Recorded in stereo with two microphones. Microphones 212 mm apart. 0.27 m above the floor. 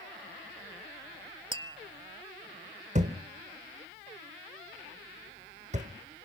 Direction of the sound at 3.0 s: 35° right (ahead or behind).